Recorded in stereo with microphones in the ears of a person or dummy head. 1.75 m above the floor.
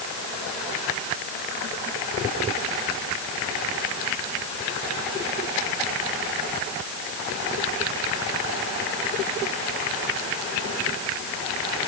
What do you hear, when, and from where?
Only background noise.